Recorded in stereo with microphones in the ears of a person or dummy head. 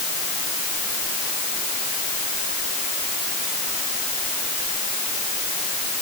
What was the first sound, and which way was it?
Only background noise.